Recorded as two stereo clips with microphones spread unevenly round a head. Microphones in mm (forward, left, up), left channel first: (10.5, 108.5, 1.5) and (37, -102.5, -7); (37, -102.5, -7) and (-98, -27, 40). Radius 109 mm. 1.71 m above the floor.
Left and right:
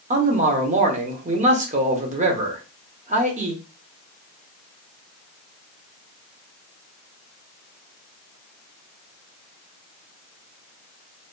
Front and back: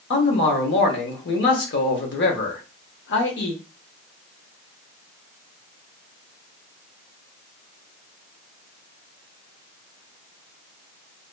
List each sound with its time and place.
0.1 s a man speaking: 30° right, 0.7 m